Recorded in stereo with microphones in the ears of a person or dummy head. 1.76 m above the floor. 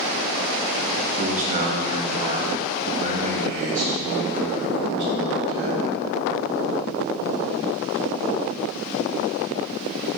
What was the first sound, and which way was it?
A man speaking, 40° right (ahead or behind).